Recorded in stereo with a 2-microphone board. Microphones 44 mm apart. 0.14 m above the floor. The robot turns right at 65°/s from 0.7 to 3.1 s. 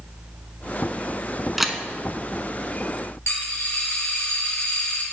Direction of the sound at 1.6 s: 5° right (ahead or behind).